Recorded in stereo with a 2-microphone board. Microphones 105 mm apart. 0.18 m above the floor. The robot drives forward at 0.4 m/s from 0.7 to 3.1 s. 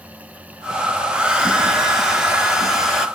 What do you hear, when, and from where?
1.1 s a hair dryer: 10° right (ahead or behind), 0.9 m; by 3.1 s 5° right (ahead or behind), 1.6 m